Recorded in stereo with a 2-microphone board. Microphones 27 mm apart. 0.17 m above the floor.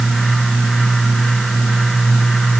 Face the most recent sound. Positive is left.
No sound to turn to.